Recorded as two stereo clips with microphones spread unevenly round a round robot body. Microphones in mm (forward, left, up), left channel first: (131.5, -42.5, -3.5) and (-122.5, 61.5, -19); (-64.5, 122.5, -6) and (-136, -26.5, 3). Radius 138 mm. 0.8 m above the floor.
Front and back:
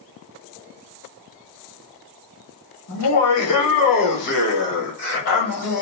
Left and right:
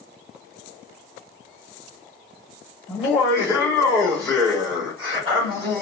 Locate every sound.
2.9 s laughter: 15° left, 1.4 m; by 5.8 s 65° right, 1.8 m